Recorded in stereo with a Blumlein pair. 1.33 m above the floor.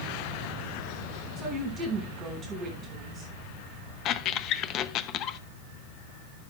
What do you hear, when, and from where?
1.4 s a woman speaking: 25° right, 7 m
4.0 s a squeak: 35° left, 0.7 m